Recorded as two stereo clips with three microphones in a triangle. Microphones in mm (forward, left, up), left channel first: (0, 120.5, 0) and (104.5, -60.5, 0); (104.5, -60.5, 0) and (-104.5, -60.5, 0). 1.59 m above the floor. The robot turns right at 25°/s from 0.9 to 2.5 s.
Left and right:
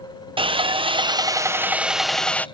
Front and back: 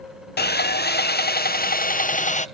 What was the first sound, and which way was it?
Sawing, straight ahead.